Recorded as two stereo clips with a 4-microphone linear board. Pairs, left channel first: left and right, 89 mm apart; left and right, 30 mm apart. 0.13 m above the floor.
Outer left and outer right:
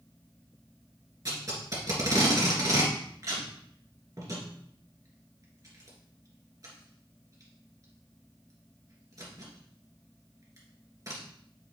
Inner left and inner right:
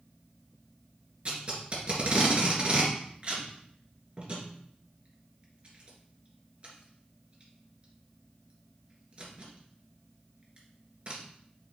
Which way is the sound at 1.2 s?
40° right (ahead or behind).